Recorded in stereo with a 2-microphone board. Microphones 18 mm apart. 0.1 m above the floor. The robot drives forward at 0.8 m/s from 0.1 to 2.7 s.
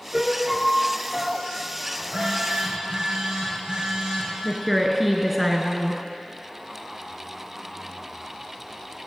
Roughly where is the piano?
Right.